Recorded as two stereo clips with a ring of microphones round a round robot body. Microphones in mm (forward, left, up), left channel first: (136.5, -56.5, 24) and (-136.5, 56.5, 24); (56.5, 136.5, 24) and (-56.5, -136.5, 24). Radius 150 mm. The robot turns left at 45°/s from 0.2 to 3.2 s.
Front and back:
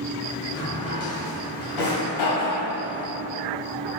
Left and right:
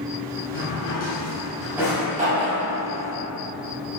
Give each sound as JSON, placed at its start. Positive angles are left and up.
{"t": 0.5, "sound": "a drawer", "azimuth_deg": 30, "distance_m": 2.0}